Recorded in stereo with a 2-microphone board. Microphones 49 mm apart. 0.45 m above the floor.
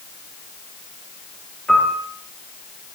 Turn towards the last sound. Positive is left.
turn(degrees=10)  # may be behind; listen again after turning